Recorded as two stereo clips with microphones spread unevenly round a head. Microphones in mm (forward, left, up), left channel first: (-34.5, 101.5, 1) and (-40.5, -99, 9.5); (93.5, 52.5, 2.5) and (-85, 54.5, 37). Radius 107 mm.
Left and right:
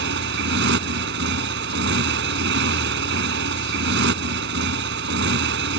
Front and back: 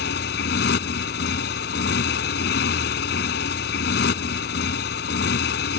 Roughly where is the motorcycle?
Ahead right.